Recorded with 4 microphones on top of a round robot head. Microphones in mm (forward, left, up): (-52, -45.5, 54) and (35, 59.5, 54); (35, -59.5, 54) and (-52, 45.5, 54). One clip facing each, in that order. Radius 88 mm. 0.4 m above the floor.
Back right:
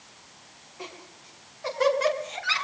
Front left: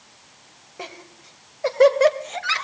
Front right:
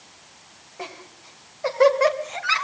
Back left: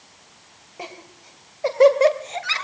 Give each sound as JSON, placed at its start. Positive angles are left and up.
{"t": 0.8, "sound": "laughter", "azimuth_deg": 55, "distance_m": 3.0}